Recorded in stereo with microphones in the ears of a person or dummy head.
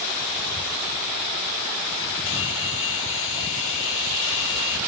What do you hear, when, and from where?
2.3 s a hair dryer: 75° left (ahead or behind)